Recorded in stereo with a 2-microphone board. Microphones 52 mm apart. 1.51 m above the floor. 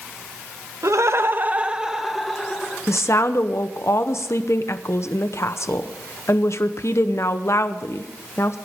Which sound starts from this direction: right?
Laughter, at 0.8 s.